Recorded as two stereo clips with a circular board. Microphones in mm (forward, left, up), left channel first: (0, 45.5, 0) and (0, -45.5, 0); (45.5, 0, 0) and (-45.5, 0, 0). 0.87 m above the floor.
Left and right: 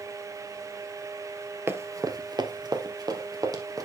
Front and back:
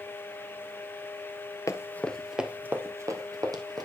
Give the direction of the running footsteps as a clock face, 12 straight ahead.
1 o'clock.